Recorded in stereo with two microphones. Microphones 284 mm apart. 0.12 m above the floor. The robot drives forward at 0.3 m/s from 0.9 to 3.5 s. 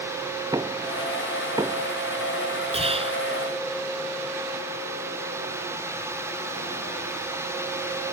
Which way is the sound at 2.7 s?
20° right (ahead or behind).